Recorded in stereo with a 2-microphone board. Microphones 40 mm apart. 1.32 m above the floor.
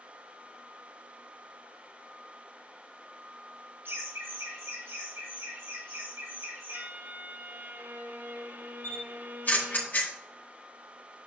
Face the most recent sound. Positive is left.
turn(degrees=45)  # may be behind; listen again after turning